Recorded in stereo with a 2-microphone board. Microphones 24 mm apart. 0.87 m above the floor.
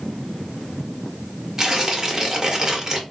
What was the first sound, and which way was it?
Tearing paper, 20° right (ahead or behind).